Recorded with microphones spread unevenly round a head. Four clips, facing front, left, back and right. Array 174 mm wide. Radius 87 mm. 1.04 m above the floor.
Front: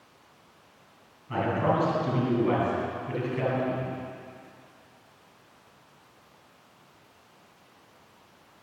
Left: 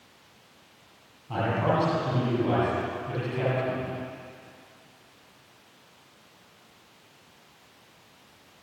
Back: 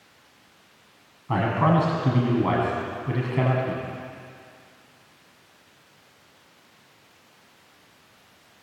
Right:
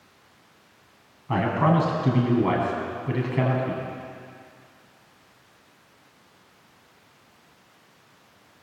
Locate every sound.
1.3 s a man speaking: 140° right, 8 m